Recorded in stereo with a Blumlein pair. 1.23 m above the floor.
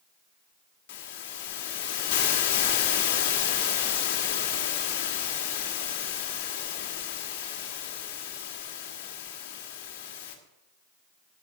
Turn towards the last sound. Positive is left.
turn(degrees=50)